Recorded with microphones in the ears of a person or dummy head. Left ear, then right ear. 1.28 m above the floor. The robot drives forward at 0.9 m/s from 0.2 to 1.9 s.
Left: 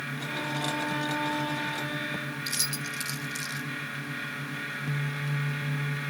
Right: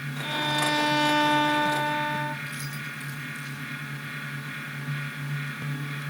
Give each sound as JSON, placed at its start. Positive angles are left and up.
{"t": 0.2, "sound": "a violin", "side_deg": -45, "distance_m": 0.9}
{"t": 2.5, "sound": "keys jangling", "side_deg": 35, "distance_m": 1.3}